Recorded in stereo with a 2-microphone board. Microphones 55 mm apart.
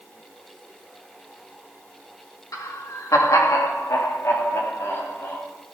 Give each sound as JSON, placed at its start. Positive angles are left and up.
{"t": 2.5, "sound": "laughter", "side_deg": 85, "distance_m": 2.0}